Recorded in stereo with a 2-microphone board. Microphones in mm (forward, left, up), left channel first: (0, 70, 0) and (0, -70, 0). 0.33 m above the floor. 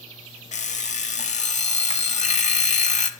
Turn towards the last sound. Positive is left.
turn(degrees=60)  # may be behind; listen again after turning